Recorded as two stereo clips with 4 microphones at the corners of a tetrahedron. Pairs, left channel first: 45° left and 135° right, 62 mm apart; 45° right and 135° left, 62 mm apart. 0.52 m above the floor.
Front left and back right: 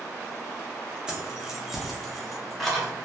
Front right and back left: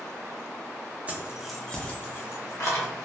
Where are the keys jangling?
155° left, 0.6 m; by 2.9 s 40° right, 1.0 m.